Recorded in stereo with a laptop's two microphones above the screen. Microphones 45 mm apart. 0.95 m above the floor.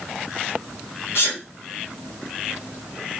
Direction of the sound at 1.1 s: 65° left (ahead or behind).